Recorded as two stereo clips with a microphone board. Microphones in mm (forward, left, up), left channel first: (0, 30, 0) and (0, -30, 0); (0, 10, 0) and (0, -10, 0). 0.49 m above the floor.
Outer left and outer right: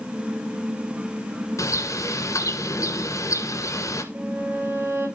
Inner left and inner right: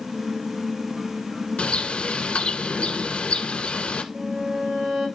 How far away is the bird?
About 1.3 m.